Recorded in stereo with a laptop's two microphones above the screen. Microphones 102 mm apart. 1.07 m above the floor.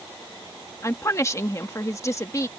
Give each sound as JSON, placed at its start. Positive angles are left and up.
{"t": 0.8, "sound": "a woman speaking", "side_deg": 30}